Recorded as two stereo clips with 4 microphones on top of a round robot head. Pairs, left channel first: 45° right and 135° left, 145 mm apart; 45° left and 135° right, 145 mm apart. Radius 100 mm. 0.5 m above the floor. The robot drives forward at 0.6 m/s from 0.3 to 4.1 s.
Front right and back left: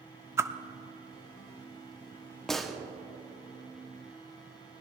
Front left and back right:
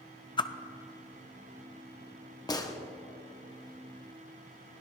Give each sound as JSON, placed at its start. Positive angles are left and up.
{"t": 0.4, "sound": "a whoosh", "azimuth_deg": 70, "distance_m": 0.7}
{"t": 2.5, "sound": "a gunshot", "azimuth_deg": 35, "distance_m": 1.4}